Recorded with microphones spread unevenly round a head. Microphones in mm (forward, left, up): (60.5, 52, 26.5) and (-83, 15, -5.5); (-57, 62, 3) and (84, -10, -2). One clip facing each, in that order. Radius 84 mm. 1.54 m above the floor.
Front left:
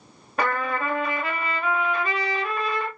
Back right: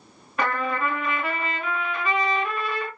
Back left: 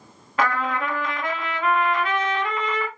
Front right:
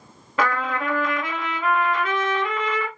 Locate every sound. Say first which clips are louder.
0.4 s a trumpet: even, even; 45° right, 1.1 m